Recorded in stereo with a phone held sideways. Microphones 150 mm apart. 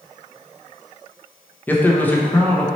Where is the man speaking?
15° left (ahead or behind), 0.6 m.